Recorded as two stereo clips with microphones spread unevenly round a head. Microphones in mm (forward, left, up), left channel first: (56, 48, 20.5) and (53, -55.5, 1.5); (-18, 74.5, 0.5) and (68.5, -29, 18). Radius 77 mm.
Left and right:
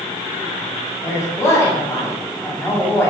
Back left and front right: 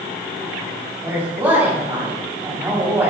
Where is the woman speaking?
25° left, 9 m.